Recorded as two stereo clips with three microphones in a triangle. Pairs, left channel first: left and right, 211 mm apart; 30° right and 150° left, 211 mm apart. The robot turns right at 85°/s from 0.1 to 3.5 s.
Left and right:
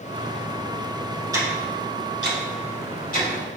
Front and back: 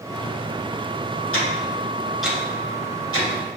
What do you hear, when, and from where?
1.3 s ticking: 15° right, 2.5 m; by 3.6 s 165° left, 2.5 m